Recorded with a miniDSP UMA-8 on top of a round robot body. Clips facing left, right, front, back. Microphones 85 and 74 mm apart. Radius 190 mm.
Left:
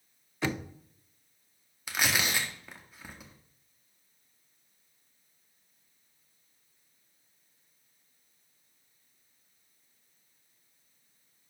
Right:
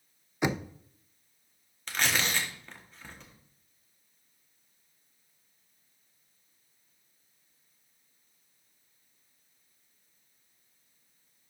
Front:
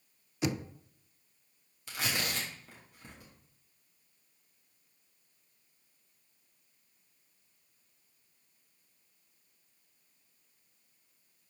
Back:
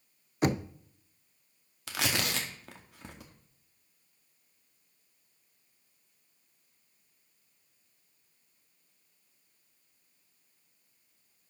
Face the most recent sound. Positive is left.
turn(degrees=170)